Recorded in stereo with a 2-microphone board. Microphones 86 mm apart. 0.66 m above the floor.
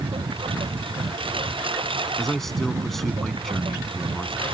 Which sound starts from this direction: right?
A lawn mower, at 0.0 s.